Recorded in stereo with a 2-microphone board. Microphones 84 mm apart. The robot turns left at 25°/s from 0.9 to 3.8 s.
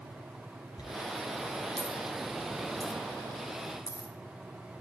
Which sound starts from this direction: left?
A dropped coin, at 0.8 s.